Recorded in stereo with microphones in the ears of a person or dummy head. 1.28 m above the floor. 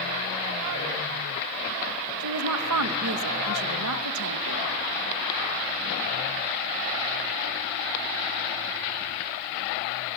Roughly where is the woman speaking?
Right.